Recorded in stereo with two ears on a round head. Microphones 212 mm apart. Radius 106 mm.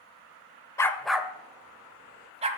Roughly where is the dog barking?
Centre.